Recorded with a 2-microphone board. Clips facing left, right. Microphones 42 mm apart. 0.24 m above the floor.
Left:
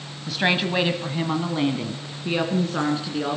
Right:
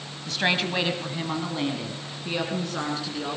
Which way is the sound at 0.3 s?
5° left (ahead or behind).